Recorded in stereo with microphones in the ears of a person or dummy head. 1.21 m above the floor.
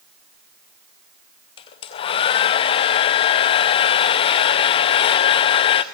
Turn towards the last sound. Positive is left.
turn(degrees=30)  # may be behind; listen again after turning